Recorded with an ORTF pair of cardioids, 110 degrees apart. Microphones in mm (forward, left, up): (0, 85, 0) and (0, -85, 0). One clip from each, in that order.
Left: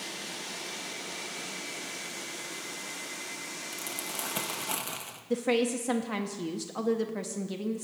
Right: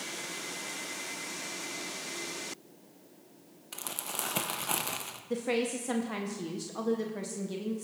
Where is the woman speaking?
20° left, 0.6 m.